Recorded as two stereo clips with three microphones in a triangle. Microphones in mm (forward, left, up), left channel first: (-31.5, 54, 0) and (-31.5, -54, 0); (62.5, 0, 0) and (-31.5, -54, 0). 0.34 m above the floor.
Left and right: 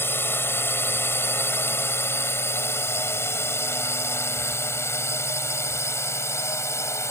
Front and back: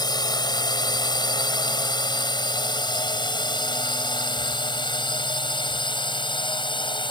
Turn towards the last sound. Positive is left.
turn(degrees=35)